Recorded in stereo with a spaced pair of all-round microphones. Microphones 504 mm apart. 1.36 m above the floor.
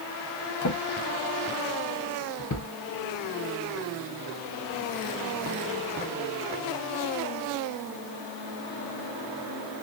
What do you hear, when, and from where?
0.6 s a drawer: 40° left (ahead or behind), 0.6 m